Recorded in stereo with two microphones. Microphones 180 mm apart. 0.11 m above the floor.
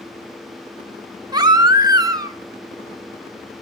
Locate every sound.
1.3 s a baby crying: 20° right (ahead or behind), 0.7 m